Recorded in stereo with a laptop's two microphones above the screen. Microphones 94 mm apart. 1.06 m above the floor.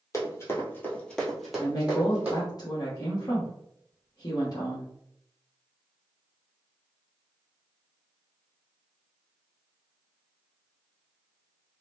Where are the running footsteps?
35° left (ahead or behind), 1.3 m; by 2.5 s 20° right (ahead or behind), 1.7 m.